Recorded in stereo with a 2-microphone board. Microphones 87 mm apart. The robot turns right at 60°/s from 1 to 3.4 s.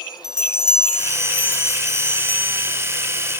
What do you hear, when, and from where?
0.2 s a bell: 5° right, 4.5 m; by 2.8 s 100° left, 4.5 m